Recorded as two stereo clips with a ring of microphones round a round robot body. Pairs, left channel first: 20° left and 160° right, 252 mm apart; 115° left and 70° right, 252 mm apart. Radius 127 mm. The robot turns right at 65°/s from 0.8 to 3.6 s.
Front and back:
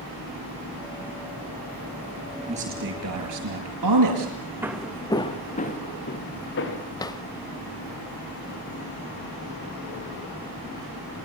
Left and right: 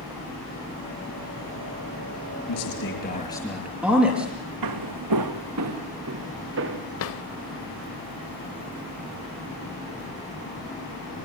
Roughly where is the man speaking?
Behind left.